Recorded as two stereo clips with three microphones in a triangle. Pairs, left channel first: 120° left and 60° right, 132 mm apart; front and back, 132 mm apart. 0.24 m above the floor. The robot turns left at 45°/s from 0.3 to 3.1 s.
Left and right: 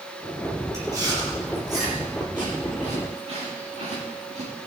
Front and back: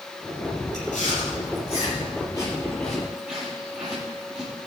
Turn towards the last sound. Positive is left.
turn(degrees=-100)